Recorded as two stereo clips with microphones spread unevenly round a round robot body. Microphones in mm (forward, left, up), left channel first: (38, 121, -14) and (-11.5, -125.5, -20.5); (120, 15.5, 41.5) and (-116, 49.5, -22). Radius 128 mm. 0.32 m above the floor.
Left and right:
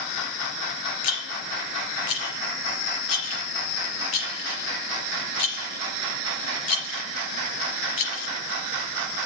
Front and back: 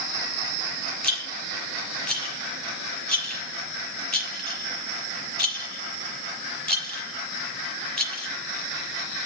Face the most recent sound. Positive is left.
turn(degrees=80)